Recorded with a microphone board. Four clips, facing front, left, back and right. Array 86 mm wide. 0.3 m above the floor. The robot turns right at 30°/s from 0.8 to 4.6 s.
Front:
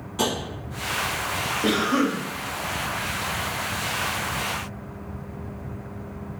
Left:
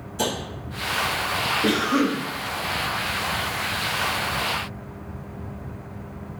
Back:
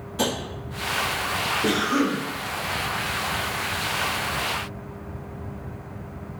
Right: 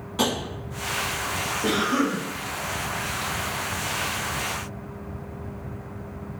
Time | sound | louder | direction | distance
0.2 | tapping | right 2 dB, even | 75° right | 1.3 m
1.6 | a cough | left 1 dB, front 1 dB | 10° left | 1.0 m